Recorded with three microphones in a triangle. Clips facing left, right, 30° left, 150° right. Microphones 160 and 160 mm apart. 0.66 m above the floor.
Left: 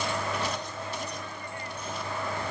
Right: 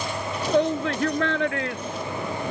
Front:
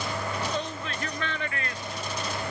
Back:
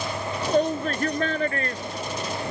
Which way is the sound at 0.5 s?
105° right.